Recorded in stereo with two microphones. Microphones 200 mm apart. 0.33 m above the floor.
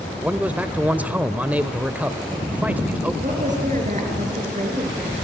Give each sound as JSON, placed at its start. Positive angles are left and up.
{"t": 0.2, "sound": "a man speaking", "side_deg": -10, "distance_m": 0.9}
{"t": 3.2, "sound": "a woman speaking", "side_deg": -40, "distance_m": 5.0}